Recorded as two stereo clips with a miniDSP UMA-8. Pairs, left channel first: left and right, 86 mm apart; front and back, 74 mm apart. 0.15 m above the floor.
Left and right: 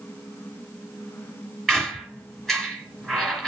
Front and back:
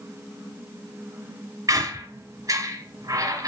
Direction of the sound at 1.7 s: Straight behind.